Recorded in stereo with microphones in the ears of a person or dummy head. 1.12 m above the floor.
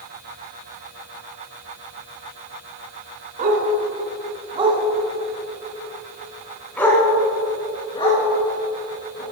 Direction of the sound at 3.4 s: 50° right (ahead or behind).